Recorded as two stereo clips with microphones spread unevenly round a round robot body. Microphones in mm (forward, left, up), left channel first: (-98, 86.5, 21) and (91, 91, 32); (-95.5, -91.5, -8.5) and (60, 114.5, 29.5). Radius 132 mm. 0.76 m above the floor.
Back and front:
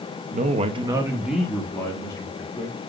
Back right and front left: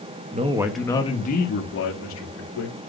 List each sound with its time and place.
0.3 s a man speaking: straight ahead, 1.2 m; by 2.8 s 110° right, 3 m